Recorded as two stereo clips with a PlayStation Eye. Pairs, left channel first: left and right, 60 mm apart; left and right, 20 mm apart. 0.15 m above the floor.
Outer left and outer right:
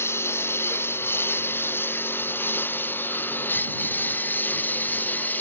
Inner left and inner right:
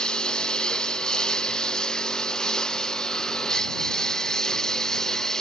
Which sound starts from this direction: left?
A lawn mower, at 0.0 s.